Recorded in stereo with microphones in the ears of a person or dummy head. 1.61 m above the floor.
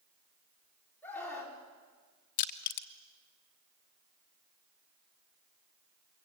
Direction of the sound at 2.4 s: 40° left (ahead or behind).